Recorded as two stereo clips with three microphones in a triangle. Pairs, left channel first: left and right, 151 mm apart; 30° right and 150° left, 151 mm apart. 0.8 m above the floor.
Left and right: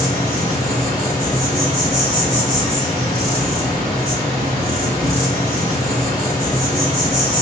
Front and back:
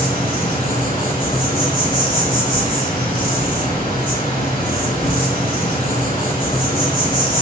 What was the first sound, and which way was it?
An insect, 55° right.